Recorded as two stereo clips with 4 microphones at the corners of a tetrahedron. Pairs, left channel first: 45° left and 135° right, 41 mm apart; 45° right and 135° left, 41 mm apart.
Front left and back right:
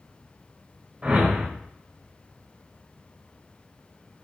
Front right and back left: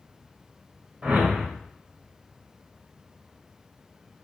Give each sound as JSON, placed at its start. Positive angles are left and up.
{"t": 1.0, "sound": "a whoosh", "azimuth_deg": 180, "distance_m": 1.1}